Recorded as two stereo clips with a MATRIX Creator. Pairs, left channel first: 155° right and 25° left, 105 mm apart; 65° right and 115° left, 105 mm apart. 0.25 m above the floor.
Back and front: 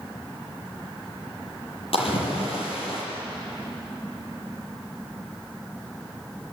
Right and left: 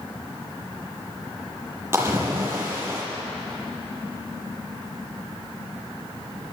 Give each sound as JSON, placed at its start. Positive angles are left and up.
{"t": 1.9, "sound": "a splash", "azimuth_deg": 180, "distance_m": 6.5}